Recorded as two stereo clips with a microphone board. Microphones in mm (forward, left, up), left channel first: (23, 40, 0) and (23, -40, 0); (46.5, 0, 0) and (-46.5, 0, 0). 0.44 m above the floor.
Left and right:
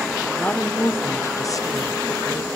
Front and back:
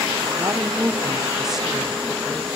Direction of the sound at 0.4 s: 150° left.